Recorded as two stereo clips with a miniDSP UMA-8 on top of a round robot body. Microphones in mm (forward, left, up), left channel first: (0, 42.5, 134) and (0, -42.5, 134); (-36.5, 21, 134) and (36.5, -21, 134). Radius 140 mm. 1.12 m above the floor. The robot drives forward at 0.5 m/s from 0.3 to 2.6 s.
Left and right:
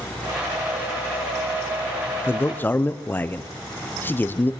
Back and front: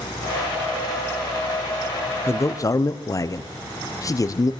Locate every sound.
2.3 s a man speaking: 125° left, 0.7 m; by 4.5 s 145° left, 0.7 m